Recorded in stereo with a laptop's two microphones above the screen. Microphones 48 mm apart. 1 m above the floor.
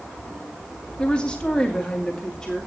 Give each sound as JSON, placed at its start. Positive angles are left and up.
{"t": 1.0, "sound": "a woman speaking", "side_deg": 20, "distance_m": 1.5}